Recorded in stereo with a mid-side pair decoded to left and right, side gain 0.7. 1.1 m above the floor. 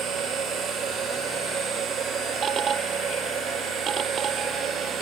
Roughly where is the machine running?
Ahead right.